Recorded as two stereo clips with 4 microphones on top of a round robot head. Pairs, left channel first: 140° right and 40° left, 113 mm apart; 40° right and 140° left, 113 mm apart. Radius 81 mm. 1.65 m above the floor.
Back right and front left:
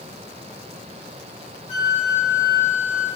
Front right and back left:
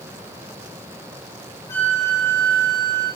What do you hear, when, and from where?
1.7 s a flute: 110° right, 5 m